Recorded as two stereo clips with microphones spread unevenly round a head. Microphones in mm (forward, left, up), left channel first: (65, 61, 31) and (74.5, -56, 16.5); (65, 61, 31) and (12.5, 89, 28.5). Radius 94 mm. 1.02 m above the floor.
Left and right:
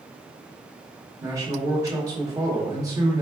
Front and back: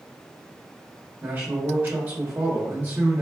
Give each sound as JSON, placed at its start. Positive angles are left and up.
{"t": 1.2, "sound": "a man speaking", "azimuth_deg": -145, "distance_m": 1.2}